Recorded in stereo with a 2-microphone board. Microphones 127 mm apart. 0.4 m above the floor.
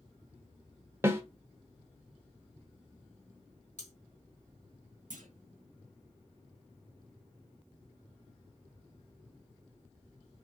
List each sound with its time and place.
1.0 s a snare drum: 20° right (ahead or behind), 0.6 m
3.8 s cutlery clinking: 70° left (ahead or behind), 1.4 m
5.1 s a clunk: 80° right, 0.6 m